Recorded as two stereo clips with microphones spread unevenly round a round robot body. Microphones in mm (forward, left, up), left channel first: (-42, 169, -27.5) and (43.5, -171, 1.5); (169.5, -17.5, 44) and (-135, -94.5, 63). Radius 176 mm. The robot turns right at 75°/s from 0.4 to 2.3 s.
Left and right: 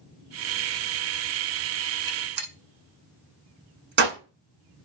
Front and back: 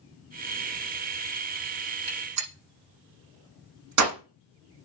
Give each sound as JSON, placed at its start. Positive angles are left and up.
{"t": 2.1, "sound": "a gunshot", "azimuth_deg": -155, "distance_m": 7.0}